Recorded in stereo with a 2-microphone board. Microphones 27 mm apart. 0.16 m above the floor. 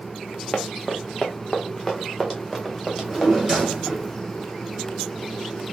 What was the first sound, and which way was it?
Running footsteps, 35° left (ahead or behind).